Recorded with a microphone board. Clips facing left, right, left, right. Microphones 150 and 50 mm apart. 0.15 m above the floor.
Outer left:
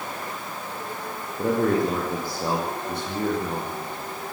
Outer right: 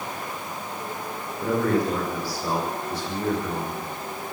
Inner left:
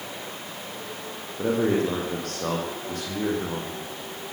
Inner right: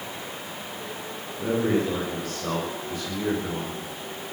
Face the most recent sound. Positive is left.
turn(degrees=70)  # may be behind; listen again after turning